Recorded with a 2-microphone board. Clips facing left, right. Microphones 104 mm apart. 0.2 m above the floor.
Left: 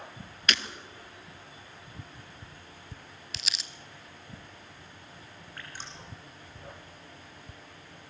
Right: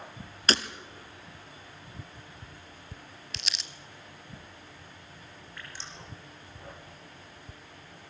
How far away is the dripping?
About 5 m.